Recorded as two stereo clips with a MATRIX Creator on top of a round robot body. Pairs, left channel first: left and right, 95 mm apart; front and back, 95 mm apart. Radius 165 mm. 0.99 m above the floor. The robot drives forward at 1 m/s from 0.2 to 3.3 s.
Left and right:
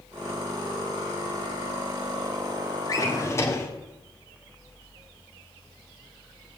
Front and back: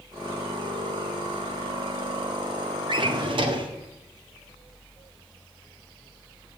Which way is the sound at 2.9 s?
145° left.